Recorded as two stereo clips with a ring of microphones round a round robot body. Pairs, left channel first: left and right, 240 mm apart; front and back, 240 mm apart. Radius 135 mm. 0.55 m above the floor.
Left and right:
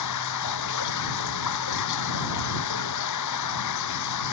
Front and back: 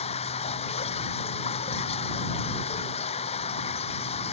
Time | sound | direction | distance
0.0 | running water | 70° left | ?